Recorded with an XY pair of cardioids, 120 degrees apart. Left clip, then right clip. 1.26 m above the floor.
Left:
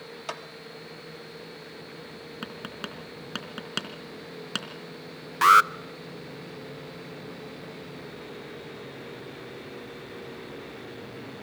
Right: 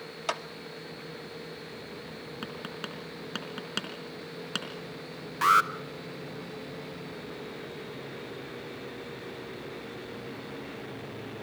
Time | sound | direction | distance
0.3 | a clap | 25° right | 1.6 m
2.4 | tapping | 15° left | 3.5 m
5.4 | an alarm | 35° left | 0.7 m